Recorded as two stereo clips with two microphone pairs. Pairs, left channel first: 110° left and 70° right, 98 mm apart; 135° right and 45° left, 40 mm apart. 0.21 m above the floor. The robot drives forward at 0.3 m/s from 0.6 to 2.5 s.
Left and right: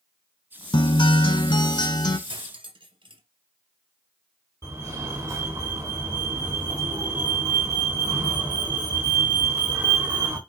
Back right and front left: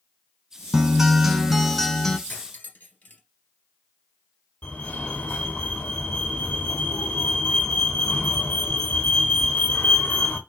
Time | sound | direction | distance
0.7 | a guitar | 125° left | 0.7 m
2.3 | cutlery clinking | 95° right | 2.5 m
4.6 | a fire alarm | 115° right | 3 m